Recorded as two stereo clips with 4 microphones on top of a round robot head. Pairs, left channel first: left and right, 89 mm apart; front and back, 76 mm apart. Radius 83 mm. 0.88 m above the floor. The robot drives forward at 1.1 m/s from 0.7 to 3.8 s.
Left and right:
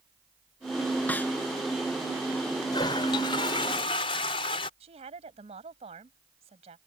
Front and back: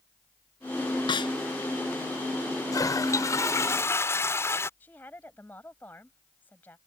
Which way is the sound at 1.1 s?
15° left.